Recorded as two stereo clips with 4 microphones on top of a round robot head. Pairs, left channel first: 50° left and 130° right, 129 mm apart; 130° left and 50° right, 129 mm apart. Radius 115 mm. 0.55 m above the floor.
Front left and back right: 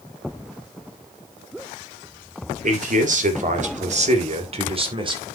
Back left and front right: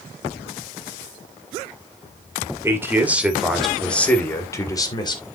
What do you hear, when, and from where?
2.6 s a man speaking: 120° right, 2.5 m; by 5.3 s straight behind, 3 m